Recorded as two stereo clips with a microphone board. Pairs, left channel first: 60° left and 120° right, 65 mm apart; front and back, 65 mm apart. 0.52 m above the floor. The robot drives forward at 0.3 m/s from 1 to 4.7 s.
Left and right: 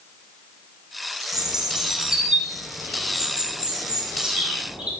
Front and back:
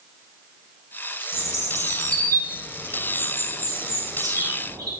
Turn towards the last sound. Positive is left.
turn(degrees=165)